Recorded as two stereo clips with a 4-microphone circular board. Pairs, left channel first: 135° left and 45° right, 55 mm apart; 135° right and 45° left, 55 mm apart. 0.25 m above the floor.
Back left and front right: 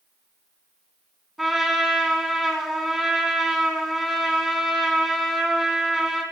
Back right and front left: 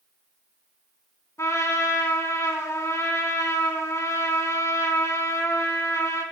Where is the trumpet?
135° right, 2 m.